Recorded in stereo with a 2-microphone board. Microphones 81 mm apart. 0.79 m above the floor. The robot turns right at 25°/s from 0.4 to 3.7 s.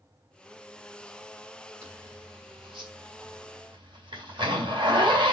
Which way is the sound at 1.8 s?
55° right (ahead or behind).